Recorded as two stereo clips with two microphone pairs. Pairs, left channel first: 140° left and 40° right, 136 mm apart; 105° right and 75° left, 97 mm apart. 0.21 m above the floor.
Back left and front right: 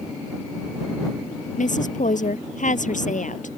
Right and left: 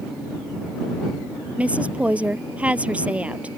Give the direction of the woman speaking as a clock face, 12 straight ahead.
7 o'clock.